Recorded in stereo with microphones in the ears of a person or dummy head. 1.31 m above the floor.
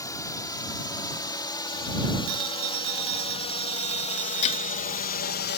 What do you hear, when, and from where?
0.0 s a drone: 15° left (ahead or behind); by 5.6 s 50° left (ahead or behind)
2.3 s a phone ringing: 85° right
4.4 s breaking glass: 35° left (ahead or behind)